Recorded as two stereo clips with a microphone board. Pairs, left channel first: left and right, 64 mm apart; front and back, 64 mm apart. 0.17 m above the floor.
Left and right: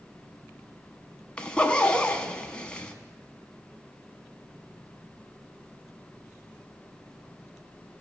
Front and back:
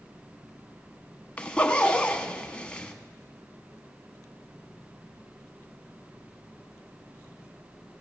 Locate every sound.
1.4 s a zipper: 40° left, 0.7 m